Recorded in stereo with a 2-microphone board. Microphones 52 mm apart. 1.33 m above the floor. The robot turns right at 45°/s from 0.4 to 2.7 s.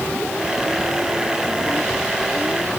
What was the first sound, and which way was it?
Only background noise.